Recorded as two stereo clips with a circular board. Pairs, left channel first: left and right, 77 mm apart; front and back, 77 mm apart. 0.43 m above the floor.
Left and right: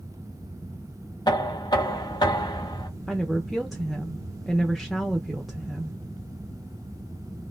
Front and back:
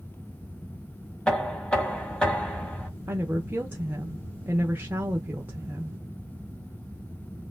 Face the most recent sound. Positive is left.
turn(degrees=180)